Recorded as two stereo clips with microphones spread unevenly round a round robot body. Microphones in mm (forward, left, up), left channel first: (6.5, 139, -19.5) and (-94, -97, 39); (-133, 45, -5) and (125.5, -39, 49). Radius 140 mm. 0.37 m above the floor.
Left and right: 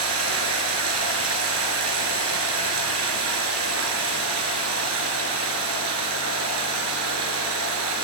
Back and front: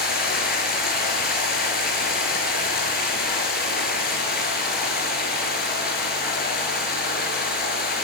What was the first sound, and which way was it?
Running water, 140° right.